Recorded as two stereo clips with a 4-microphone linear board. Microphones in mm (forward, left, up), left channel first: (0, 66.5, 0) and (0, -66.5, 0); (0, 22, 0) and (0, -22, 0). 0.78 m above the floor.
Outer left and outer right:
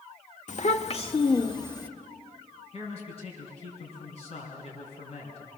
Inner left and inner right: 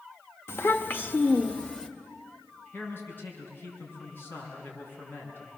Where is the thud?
No thud in this recording.